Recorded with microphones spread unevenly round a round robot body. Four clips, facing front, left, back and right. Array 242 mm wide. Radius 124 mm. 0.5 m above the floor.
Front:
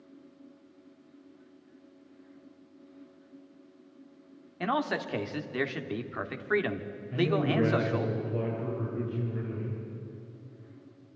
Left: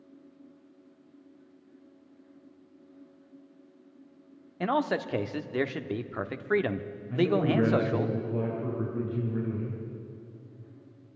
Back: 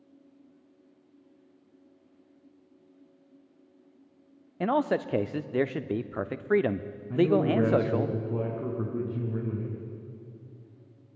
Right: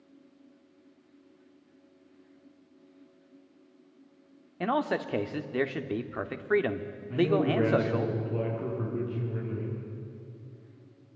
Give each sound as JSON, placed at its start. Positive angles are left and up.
{"t": 4.6, "sound": "a man speaking", "azimuth_deg": -175, "distance_m": 0.9}
{"t": 7.1, "sound": "a man speaking", "azimuth_deg": -175, "distance_m": 6.0}